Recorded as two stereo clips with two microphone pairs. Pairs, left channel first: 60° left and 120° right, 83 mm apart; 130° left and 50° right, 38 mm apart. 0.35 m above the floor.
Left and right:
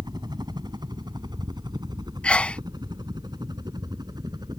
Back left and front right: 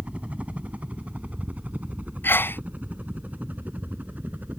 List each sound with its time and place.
0.0 s a helicopter: 100° right; by 4.6 s 90° right
2.2 s a sneeze: 135° left